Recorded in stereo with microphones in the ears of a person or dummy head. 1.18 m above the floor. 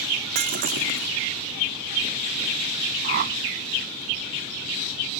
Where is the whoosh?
55° right (ahead or behind).